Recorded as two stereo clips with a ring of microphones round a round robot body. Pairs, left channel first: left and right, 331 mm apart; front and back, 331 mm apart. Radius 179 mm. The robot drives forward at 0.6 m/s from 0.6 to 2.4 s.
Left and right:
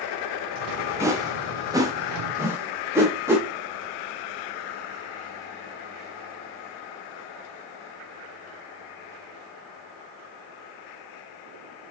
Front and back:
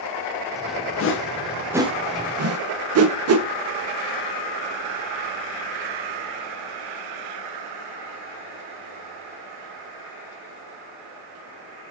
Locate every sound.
1.0 s a whoosh: 10° right, 0.6 m; by 3.5 s 170° right, 0.7 m